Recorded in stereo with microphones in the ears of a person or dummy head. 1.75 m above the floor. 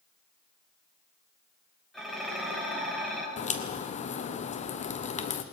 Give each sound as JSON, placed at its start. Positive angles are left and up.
{"t": 1.9, "sound": "dishes clattering", "side_deg": 5, "distance_m": 5.5}
{"t": 3.4, "sound": "a crack", "side_deg": 35, "distance_m": 0.9}